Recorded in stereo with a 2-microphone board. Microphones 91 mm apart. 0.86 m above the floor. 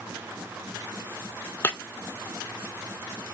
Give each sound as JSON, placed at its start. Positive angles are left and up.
{"t": 1.6, "sound": "breaking glass", "side_deg": 25, "distance_m": 0.7}